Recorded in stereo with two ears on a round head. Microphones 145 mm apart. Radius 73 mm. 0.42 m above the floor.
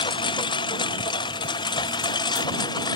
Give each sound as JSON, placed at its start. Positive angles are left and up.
{"t": 0.0, "sound": "a lawn mower", "side_deg": 30}